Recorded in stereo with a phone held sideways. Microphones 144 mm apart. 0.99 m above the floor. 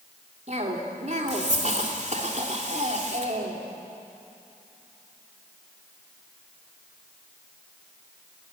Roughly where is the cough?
Right.